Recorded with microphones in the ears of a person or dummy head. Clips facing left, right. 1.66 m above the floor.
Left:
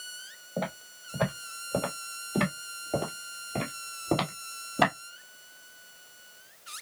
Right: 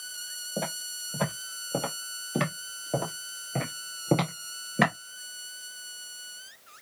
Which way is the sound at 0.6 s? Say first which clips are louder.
Even; 5° right (ahead or behind).